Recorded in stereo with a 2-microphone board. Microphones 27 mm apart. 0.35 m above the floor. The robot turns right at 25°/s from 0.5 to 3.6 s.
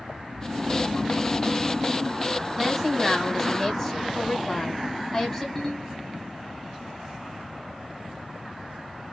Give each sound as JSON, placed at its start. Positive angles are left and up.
{"t": 0.3, "sound": "snoring", "azimuth_deg": -40, "distance_m": 2.5}
{"t": 2.6, "sound": "a woman speaking", "side_deg": -5, "distance_m": 3.0}
{"t": 5.5, "sound": "a ringtone", "side_deg": 15, "distance_m": 3.5}